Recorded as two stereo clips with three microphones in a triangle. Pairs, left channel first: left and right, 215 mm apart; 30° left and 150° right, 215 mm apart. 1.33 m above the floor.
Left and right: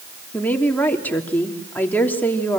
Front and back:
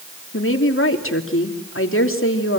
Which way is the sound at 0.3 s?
10° left.